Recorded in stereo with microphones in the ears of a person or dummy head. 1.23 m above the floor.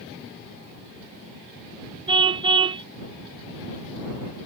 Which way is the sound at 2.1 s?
25° right (ahead or behind).